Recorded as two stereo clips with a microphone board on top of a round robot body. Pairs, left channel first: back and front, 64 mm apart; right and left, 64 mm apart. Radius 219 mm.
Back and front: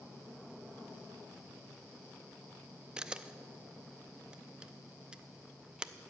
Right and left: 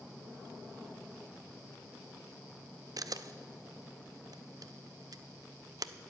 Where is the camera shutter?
75° left, 0.6 m.